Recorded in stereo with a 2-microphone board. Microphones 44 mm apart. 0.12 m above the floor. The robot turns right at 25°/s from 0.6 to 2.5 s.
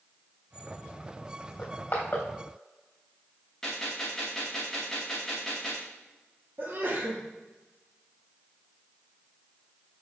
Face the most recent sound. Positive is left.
turn(degrees=-45)  # may be behind; listen again after turning